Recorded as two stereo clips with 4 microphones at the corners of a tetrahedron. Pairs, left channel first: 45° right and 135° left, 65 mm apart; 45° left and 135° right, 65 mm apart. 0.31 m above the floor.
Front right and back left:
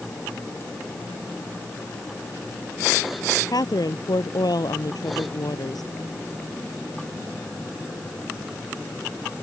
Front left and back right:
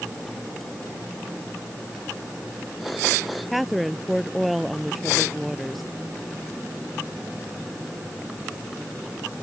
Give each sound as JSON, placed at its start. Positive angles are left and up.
{"t": 3.5, "sound": "a woman speaking", "azimuth_deg": -45}